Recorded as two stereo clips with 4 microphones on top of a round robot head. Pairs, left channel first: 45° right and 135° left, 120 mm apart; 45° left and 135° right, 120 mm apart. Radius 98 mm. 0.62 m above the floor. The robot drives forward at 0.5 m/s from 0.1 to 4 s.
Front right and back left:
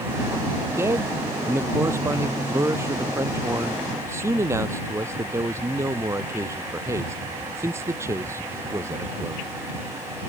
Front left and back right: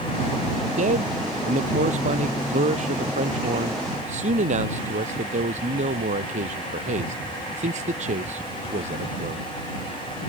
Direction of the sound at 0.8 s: 155° right.